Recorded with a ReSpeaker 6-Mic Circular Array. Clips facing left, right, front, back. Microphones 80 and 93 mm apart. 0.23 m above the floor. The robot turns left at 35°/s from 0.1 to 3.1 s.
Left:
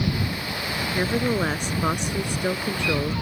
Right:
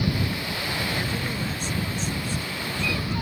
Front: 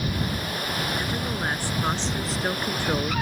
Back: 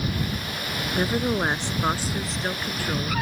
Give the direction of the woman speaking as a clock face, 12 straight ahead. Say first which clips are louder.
Left 6 dB, back 5 dB; 7 o'clock.